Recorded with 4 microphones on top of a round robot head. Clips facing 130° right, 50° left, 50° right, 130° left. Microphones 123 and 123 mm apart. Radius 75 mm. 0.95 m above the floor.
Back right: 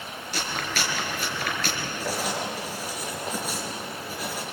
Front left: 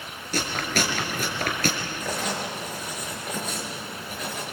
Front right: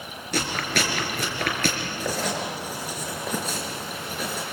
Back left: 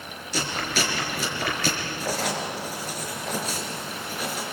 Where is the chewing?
5° right, 4 m.